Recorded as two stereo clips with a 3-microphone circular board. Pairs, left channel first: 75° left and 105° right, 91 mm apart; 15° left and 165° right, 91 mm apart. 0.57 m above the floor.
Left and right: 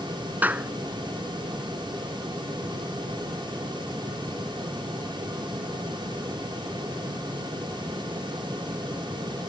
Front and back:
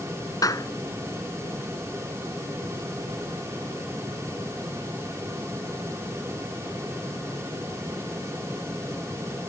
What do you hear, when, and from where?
0.4 s a clap: 35° right